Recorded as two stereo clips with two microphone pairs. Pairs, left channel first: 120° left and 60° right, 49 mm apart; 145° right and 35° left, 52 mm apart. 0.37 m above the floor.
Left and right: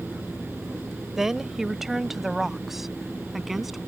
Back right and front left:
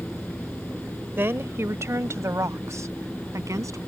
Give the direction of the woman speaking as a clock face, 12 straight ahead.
11 o'clock.